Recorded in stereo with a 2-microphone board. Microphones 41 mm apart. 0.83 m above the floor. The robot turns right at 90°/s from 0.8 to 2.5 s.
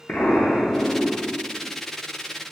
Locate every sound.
0.1 s an explosion: 35° left, 0.6 m; by 1.7 s 120° left, 0.6 m